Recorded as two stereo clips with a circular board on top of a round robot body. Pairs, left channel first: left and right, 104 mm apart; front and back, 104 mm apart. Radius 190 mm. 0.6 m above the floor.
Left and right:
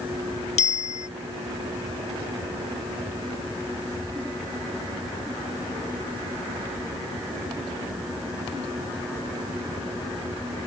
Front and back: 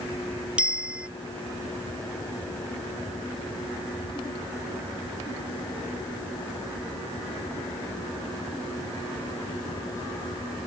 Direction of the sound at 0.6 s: 100° left.